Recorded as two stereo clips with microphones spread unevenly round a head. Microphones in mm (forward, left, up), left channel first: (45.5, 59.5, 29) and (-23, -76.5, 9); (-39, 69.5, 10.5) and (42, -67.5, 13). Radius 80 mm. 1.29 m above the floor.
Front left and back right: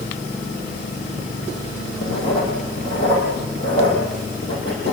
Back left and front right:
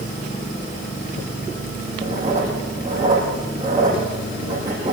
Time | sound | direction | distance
2.0 | writing | 10° left | 9.5 m